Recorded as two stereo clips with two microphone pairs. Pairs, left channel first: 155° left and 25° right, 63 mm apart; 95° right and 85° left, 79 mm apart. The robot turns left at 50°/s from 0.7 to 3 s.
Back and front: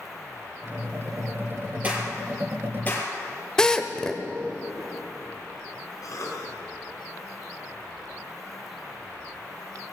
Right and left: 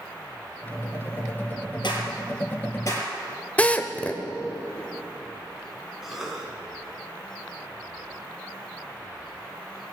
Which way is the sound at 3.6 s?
135° right.